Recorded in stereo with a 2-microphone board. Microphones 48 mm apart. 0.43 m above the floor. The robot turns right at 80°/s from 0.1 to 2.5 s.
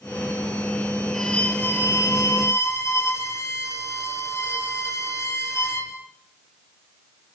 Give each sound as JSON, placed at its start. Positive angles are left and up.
{"t": 1.1, "sound": "a violin", "azimuth_deg": 5, "distance_m": 5.0}